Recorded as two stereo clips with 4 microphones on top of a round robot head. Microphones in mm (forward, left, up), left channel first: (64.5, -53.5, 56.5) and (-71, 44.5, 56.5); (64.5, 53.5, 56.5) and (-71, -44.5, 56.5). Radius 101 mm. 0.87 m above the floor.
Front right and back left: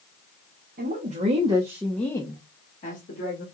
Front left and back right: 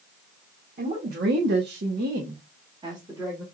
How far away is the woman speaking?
About 1.5 m.